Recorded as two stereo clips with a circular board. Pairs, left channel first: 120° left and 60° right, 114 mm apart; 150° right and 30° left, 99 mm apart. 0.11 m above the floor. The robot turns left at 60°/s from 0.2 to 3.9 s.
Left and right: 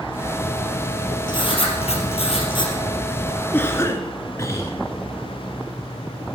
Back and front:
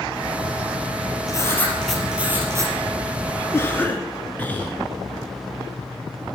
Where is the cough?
Straight behind, 1.3 m; by 4.7 s 155° left, 1.3 m.